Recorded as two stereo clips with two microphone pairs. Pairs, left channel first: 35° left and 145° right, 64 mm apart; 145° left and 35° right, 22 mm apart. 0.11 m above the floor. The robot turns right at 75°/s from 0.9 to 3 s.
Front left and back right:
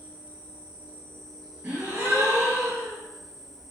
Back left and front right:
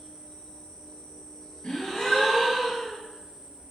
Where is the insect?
150° left, 0.7 m; by 3.7 s 50° right, 0.7 m.